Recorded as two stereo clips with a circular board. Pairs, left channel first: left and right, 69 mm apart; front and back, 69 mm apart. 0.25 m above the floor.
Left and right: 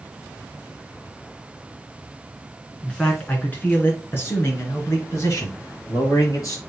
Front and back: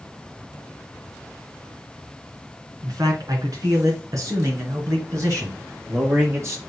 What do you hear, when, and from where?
2.8 s a man speaking: 165° left, 2.5 m; by 6.6 s 130° left, 4.5 m